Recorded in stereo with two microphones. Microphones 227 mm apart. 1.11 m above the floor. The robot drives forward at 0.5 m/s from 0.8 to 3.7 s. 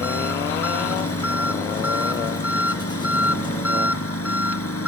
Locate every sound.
0.0 s an engine running: 85° left; by 4.9 s 80° left